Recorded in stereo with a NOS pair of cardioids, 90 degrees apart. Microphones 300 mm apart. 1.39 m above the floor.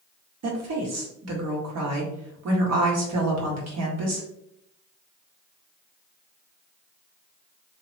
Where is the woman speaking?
55° right, 1.3 m.